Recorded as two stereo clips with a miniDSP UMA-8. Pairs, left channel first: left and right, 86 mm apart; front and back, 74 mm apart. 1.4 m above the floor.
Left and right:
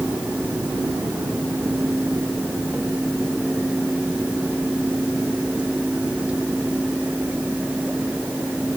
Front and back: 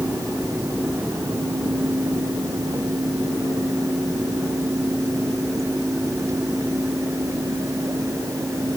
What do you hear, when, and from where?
Only background noise.